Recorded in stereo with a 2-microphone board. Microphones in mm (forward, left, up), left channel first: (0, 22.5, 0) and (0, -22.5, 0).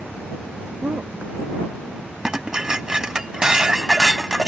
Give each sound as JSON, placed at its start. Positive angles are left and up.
{"t": 0.8, "sound": "a woman speaking", "side_deg": -45}
{"t": 2.2, "sound": "dishes clattering", "side_deg": -15}